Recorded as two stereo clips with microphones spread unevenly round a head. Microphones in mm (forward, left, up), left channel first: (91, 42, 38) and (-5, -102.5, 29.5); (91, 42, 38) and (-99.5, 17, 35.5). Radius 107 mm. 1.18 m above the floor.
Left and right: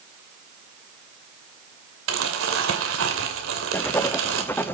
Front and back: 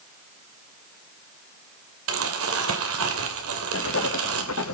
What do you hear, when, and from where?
2.1 s crumpling: 150° right, 2.5 m
3.7 s writing: 20° right, 0.9 m